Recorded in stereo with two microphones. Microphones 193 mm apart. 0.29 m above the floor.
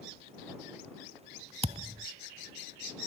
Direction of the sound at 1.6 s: 30° right (ahead or behind).